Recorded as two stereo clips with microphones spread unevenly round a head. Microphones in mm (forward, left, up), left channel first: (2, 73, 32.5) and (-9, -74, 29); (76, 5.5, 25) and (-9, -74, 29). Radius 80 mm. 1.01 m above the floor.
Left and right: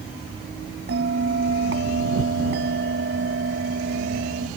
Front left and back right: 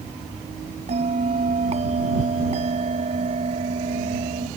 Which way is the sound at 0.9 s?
110° right.